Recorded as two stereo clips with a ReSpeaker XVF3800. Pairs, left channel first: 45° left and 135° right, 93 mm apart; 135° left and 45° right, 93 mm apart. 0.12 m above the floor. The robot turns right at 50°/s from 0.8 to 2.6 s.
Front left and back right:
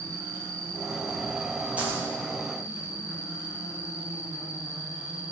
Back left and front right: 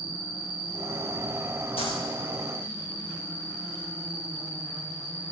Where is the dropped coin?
150° left, 5.5 m; by 2.0 s 165° left, 5.5 m.